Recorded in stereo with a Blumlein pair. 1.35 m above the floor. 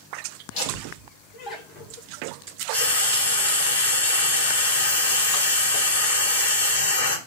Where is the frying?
65° left, 2.5 m.